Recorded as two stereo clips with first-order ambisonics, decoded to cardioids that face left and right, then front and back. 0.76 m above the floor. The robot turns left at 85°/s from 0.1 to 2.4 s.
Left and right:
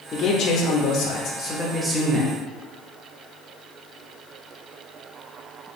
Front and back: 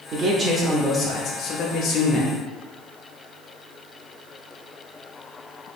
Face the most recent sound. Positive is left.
turn(degrees=-40)